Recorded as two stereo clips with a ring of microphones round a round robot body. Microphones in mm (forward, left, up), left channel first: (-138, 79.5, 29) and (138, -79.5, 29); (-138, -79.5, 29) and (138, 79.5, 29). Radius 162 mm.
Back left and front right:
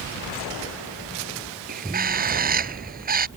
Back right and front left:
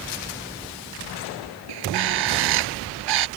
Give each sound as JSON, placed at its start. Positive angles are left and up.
{"t": 1.7, "sound": "a bird", "azimuth_deg": 30}